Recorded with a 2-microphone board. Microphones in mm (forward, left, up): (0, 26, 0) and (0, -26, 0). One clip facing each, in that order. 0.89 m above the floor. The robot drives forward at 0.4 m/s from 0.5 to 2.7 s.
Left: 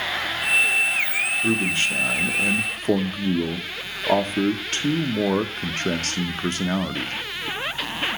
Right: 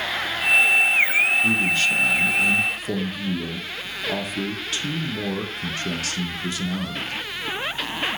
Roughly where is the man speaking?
Left.